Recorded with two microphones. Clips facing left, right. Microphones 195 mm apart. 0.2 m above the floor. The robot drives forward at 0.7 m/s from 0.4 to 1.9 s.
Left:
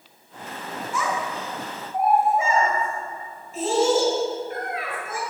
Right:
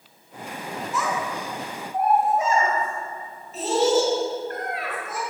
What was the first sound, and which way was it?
A child speaking, centre (ahead or behind).